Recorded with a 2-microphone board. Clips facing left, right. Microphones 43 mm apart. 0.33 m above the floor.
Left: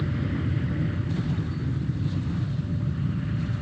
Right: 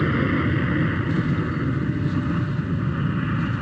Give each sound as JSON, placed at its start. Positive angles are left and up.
{"t": 0.0, "sound": "an aircraft", "side_deg": -70}